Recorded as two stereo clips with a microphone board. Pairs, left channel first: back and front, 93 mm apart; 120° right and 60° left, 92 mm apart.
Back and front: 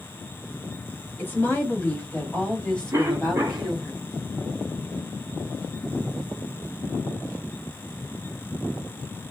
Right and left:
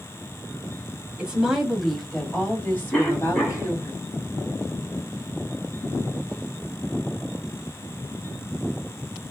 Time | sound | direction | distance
1.2 | a woman speaking | 135° left | 1.5 m
2.9 | a cough | 50° right | 2 m